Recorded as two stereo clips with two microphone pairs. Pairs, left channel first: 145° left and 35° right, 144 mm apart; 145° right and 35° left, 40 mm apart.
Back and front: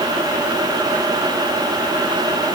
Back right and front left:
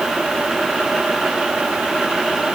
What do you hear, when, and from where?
Only background noise.